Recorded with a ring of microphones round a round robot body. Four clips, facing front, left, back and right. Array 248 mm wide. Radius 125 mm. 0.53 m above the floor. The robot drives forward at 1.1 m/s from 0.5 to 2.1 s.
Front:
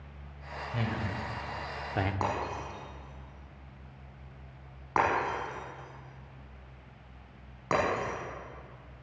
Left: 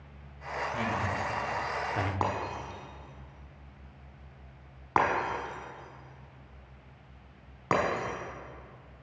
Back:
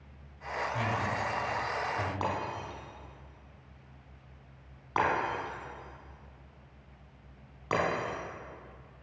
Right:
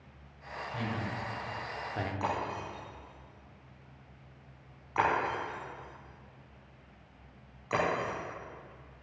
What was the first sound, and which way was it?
A man speaking, 5° left.